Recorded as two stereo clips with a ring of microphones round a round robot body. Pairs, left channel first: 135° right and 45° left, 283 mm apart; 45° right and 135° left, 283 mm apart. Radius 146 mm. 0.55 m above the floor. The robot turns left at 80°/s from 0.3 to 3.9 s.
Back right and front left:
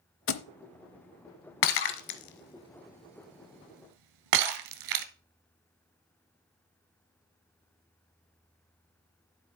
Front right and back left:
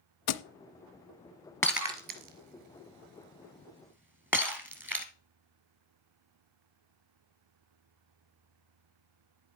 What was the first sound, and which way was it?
A thud, 85° right.